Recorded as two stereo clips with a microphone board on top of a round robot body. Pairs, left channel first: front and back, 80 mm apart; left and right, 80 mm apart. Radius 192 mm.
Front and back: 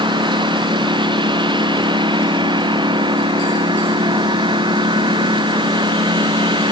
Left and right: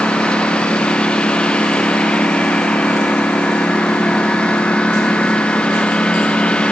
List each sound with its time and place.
0.0 s a lawn mower: 170° left